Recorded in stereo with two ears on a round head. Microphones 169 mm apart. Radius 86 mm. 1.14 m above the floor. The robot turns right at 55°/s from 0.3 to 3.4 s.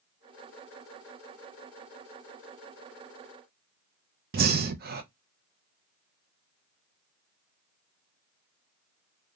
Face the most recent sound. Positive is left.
turn(degrees=-50)  # may be behind; listen again after turning